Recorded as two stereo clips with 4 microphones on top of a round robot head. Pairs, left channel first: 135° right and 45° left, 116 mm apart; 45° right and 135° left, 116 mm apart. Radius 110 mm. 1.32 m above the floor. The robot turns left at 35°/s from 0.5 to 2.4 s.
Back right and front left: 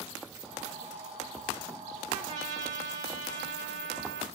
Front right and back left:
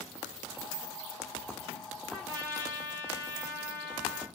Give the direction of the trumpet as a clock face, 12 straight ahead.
11 o'clock.